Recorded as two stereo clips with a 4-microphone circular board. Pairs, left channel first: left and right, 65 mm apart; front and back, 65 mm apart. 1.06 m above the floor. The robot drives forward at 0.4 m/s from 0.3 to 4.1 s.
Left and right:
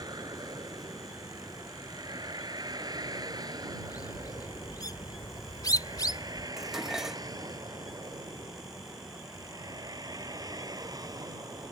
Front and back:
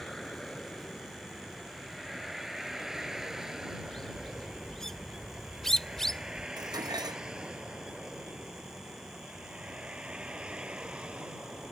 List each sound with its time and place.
0.0 s a vehicle: 85° right; by 11.7 s 105° right
3.8 s a bird: 85° left
6.6 s dishes clattering: 175° right